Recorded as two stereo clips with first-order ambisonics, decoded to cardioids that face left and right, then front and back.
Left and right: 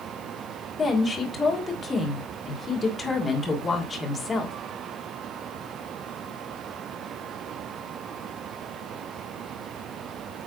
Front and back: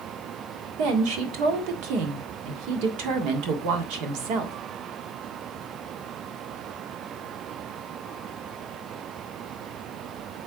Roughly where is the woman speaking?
Behind.